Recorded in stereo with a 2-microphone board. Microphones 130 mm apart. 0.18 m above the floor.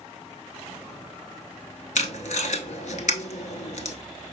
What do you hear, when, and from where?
1.9 s tape being pulled: 75° left (ahead or behind), 0.6 m